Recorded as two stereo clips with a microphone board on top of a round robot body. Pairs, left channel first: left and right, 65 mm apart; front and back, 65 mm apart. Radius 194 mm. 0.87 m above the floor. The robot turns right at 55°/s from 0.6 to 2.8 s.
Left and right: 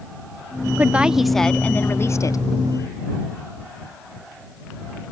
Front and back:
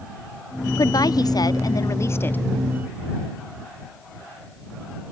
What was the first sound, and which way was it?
A woman speaking, 25° right.